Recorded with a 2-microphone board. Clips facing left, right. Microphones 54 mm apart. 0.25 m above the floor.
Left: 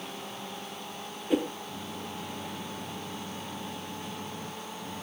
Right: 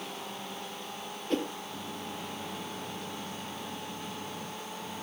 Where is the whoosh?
10° left (ahead or behind), 1.3 m.